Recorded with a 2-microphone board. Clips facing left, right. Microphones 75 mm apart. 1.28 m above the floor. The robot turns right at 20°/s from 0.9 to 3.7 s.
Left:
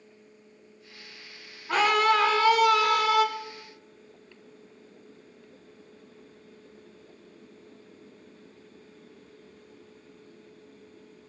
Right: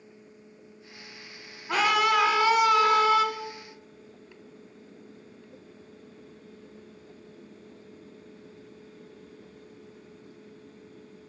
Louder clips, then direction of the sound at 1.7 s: Left 1 dB; 175° right.